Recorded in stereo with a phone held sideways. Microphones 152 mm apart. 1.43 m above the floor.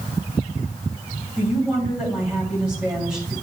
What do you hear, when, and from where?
1.4 s a woman speaking: 5° right (ahead or behind), 3.5 m